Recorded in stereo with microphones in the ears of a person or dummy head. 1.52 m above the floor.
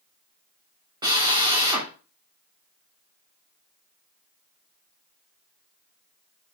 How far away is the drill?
About 2 m.